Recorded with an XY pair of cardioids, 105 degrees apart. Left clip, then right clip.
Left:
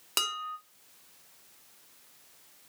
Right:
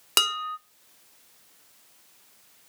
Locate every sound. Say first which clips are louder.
0.2 s dishes clattering: right 7 dB; 50° right, 0.6 m